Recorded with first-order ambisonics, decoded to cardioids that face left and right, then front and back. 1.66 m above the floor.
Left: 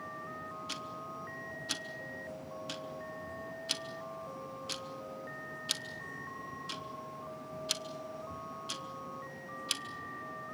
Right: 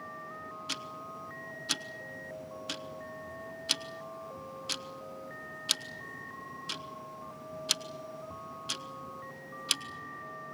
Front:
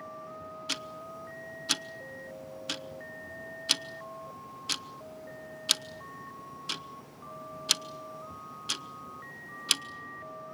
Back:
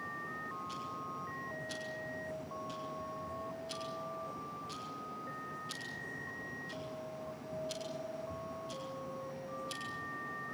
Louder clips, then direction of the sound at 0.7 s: Right 5 dB, front 4 dB; 20° right.